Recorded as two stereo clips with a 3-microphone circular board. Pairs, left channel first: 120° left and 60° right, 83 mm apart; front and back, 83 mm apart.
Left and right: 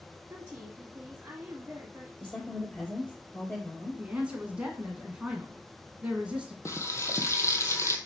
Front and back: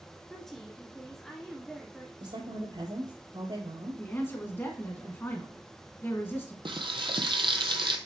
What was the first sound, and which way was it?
A woman speaking, 85° right.